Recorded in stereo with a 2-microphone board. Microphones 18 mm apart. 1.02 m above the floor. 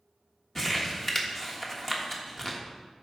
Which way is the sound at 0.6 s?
15° left (ahead or behind).